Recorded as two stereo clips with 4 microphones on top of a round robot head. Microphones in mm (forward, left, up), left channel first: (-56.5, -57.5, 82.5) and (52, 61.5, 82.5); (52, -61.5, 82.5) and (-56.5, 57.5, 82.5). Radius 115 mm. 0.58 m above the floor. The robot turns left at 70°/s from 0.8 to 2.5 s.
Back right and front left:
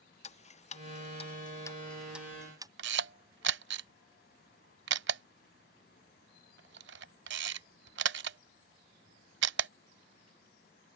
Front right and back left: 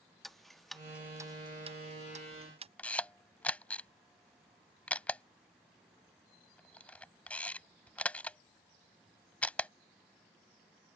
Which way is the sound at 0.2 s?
135° right.